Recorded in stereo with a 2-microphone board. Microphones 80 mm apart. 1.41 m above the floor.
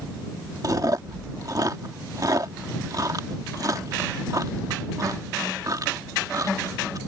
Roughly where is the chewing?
Right.